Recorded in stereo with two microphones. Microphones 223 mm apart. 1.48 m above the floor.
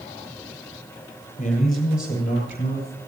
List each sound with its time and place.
1.4 s a man speaking: 40° left (ahead or behind), 7 m; by 3.0 s 45° left (ahead or behind), 9 m